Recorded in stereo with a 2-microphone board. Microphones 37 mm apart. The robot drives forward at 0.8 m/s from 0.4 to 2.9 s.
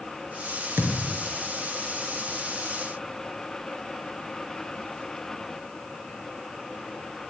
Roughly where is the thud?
Right.